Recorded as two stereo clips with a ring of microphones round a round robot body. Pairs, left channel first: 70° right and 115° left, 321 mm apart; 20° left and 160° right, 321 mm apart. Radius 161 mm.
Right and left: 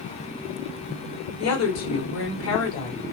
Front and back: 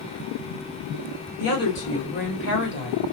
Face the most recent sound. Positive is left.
turn(degrees=-30)